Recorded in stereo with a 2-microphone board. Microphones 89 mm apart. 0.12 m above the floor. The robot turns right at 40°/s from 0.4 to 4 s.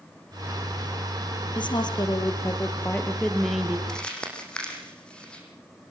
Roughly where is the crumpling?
Centre.